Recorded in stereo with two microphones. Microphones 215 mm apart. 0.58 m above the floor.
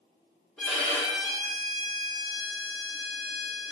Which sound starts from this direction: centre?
A violin, at 0.6 s.